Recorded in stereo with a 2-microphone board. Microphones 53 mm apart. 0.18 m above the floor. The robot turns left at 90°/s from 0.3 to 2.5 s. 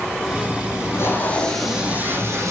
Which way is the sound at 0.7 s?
80° left.